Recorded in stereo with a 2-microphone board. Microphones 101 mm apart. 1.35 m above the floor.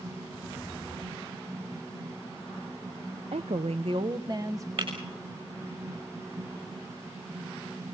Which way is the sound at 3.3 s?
70° right (ahead or behind).